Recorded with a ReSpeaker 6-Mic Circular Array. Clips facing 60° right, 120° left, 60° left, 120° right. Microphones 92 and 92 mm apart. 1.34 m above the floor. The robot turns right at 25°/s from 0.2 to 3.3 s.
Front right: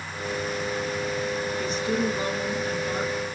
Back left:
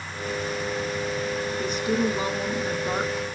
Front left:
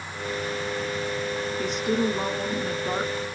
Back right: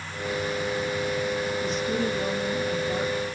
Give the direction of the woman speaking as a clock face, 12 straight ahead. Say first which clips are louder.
Back left 2 dB, front left 2 dB; 11 o'clock.